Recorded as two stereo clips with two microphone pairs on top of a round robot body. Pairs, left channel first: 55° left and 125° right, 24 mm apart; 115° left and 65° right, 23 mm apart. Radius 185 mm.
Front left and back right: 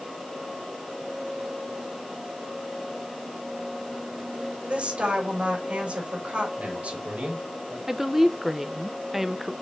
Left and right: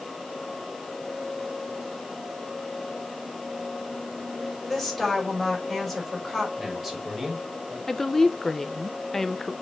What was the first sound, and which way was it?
A woman speaking, 160° right.